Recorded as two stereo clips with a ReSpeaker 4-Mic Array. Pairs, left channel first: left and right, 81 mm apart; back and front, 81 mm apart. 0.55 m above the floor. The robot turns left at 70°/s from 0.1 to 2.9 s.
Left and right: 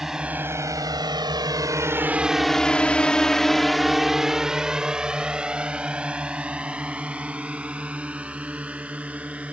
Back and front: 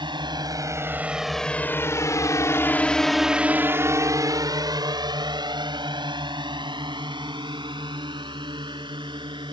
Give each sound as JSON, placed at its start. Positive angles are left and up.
{"t": 0.0, "sound": "a drone", "azimuth_deg": -5}